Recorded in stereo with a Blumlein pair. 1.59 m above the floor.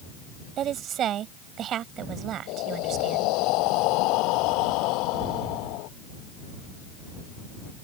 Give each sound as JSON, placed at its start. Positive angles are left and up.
{"t": 0.6, "sound": "a woman speaking", "azimuth_deg": -30}
{"t": 2.5, "sound": "breathing", "azimuth_deg": 40}